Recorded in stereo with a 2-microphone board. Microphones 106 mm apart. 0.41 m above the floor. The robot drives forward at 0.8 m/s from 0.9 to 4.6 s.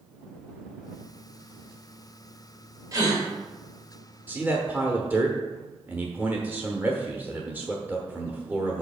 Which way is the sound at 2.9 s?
35° right (ahead or behind).